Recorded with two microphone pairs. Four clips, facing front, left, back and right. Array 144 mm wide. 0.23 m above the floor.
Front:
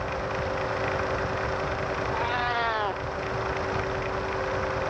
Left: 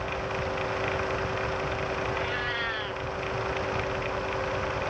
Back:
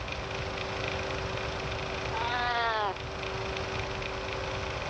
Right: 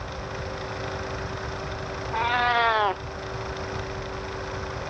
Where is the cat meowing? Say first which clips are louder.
Right 8 dB, even; 85° right.